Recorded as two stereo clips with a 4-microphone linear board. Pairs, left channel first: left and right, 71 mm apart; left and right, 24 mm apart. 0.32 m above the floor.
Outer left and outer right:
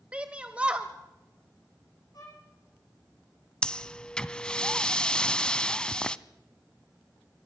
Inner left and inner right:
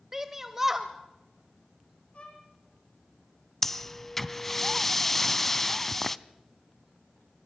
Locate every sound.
0.1 s a shout: 15° right (ahead or behind), 1.1 m
2.1 s a violin: 55° left (ahead or behind), 5.5 m
3.6 s breathing: 15° left (ahead or behind), 0.6 m